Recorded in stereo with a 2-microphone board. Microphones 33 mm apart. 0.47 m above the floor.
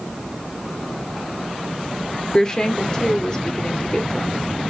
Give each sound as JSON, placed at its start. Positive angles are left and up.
{"t": 2.3, "sound": "a woman speaking", "side_deg": 20, "distance_m": 1.4}